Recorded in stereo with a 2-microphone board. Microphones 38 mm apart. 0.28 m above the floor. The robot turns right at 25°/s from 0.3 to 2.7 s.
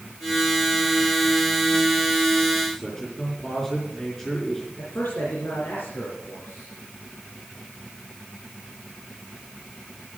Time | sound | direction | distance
2.7 | a man speaking | 10° left (ahead or behind) | 4 m
4.8 | a man speaking | 65° left (ahead or behind) | 3.5 m